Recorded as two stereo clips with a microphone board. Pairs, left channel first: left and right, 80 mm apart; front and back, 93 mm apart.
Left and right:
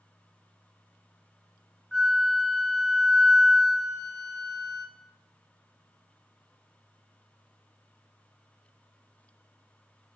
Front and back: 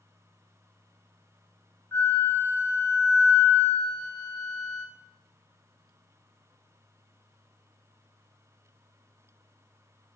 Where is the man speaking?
No man speaking in this recording.